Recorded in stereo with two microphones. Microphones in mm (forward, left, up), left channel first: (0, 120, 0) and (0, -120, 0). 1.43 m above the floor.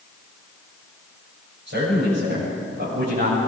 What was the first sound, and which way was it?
A man speaking, 60° right (ahead or behind).